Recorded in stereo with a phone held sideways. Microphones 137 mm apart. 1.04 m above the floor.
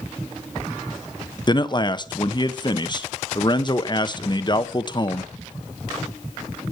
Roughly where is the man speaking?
Left.